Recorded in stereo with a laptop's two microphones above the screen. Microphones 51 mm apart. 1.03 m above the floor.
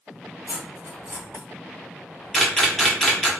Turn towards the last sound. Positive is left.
turn(degrees=10)  # may be behind; listen again after turning